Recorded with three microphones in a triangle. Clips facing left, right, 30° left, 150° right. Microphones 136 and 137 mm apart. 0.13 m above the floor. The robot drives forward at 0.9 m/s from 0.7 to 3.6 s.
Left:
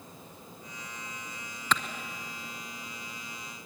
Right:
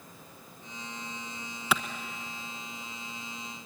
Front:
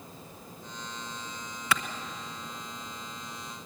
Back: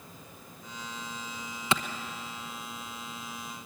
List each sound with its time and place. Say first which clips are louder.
1.7 s a clap: right 1 dB, back 1 dB; 160° right, 1.0 m; by 1.8 s 165° right, 1.0 m